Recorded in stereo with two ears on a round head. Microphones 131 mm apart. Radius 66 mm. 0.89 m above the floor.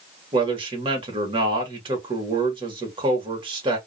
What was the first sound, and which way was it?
A man speaking, 35° right (ahead or behind).